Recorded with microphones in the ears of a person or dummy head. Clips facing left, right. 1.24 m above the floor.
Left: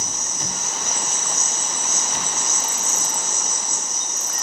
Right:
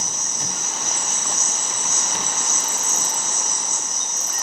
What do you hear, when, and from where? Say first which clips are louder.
0.0 s an insect: left 1 dB; 55° left (ahead or behind), 0.8 m